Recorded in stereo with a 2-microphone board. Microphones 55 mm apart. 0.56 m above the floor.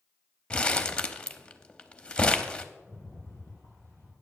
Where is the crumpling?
20° left (ahead or behind), 0.6 m.